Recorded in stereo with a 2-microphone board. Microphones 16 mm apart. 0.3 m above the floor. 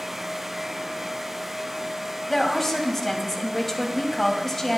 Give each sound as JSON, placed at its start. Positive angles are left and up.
{"t": 2.3, "sound": "a woman speaking", "side_deg": 15, "distance_m": 1.9}